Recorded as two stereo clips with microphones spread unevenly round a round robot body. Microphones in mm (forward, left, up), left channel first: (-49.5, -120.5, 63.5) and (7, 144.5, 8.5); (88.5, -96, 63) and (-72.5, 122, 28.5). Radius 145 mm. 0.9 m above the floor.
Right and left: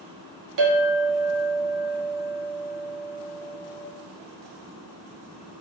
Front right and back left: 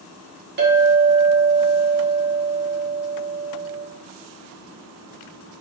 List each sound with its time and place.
0.6 s a clink: 75° left, 1.7 m